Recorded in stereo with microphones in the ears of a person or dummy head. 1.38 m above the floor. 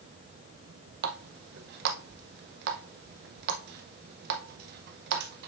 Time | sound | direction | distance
1.0 | a running tap | 60° right (ahead or behind) | 0.8 m